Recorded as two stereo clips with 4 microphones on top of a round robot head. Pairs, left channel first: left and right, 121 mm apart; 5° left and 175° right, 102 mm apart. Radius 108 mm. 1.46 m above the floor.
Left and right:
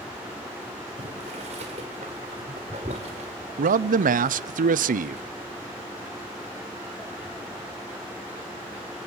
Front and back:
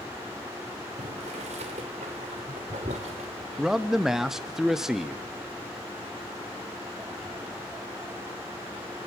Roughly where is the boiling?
Behind right.